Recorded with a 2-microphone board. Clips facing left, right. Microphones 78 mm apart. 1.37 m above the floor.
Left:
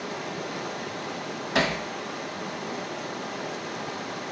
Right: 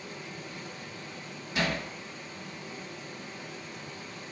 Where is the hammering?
85° left, 2.5 m.